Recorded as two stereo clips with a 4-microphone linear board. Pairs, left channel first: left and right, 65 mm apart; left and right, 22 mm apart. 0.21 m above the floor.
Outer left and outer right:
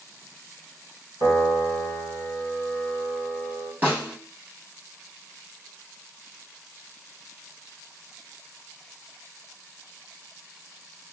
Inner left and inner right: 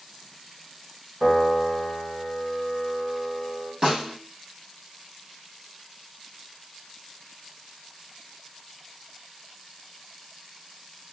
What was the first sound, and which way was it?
A piano, 70° right (ahead or behind).